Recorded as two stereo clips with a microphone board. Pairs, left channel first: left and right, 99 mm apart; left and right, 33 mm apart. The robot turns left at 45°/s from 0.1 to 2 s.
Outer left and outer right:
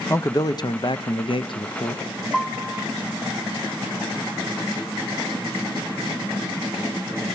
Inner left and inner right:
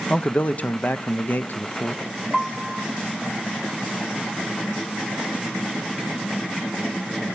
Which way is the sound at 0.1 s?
150° left.